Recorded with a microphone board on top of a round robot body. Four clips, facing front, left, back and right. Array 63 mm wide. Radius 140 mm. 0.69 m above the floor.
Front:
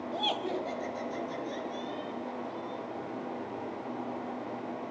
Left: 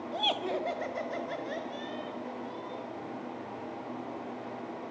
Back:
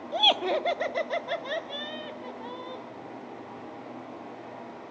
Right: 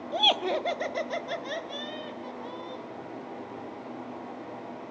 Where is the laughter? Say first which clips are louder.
Right 6 dB, back 8 dB; 150° right, 1.1 m; by 2.8 s 165° right, 4 m.